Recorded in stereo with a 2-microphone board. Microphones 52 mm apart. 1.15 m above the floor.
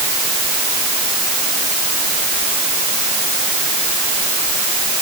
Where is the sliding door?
No sliding door in this recording.